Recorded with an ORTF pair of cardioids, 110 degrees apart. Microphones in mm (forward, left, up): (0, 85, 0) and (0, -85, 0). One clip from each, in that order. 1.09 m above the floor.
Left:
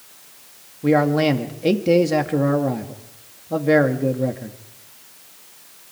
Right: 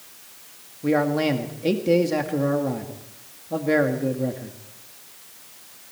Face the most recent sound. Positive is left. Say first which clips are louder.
# left 4 dB
turn(degrees=25)